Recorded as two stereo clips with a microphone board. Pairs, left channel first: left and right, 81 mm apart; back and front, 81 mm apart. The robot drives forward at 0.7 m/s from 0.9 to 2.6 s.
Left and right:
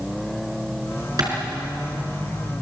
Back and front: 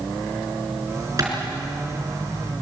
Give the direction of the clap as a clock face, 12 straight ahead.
2 o'clock.